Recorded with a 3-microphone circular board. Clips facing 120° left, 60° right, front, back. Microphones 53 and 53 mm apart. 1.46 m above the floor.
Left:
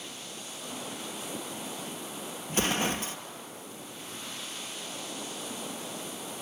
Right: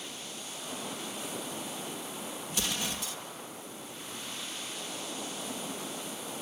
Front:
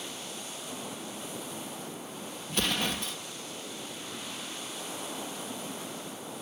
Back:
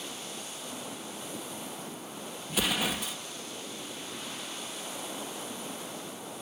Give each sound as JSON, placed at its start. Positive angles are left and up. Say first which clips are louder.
{"t": 2.5, "sound": "an explosion", "louder": "left 8 dB, back 1 dB", "azimuth_deg": 95}